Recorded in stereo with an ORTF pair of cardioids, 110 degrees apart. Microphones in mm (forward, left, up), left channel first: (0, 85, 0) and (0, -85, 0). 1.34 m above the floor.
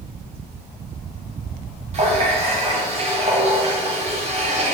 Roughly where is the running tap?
Ahead right.